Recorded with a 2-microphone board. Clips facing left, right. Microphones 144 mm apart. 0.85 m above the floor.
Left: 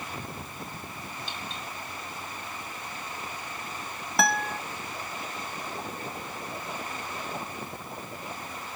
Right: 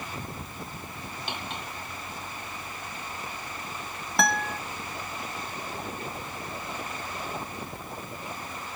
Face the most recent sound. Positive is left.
turn(degrees=0)  # may be behind; listen again after turning